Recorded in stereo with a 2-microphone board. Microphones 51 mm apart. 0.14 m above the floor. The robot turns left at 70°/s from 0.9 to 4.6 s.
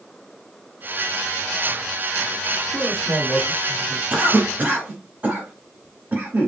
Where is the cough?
30° right (ahead or behind), 1.2 m.